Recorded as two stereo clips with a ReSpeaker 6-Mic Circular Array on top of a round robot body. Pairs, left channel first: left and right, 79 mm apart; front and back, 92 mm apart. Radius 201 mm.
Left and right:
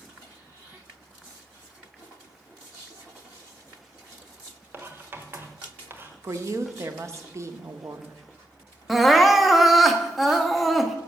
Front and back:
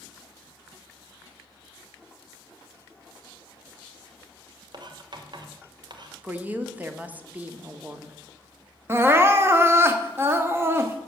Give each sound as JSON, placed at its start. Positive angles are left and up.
{"t": 4.7, "sound": "writing", "azimuth_deg": -150, "distance_m": 1.1}
{"t": 6.2, "sound": "a woman speaking", "azimuth_deg": -115, "distance_m": 1.2}
{"t": 8.9, "sound": "crying", "azimuth_deg": 180, "distance_m": 1.3}